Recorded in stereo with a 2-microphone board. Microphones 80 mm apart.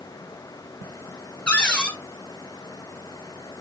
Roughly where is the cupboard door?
Centre.